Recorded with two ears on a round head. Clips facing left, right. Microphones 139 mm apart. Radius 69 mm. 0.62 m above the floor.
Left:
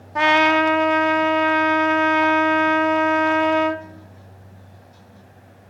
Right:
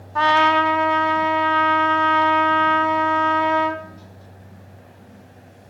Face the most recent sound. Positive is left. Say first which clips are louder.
# even
turn(degrees=20)  # may be behind; listen again after turning